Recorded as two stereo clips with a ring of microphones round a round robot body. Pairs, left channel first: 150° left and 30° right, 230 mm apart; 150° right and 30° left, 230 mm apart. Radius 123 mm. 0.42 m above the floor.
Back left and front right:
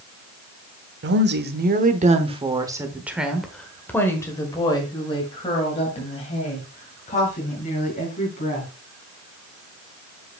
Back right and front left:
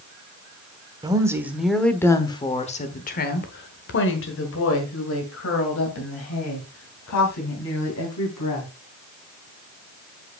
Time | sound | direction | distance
1.0 | a woman speaking | 40° right | 1.1 m